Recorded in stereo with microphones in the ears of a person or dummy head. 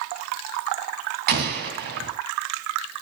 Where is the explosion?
45° right (ahead or behind), 2.5 m.